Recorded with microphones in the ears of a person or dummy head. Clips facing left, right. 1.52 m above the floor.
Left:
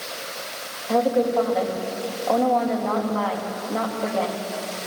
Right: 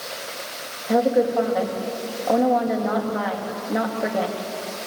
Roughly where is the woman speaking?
Centre.